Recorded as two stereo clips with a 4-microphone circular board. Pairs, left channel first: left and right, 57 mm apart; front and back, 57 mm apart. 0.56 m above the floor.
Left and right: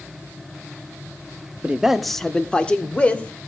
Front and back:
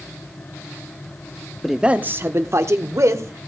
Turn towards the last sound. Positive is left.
turn(degrees=155)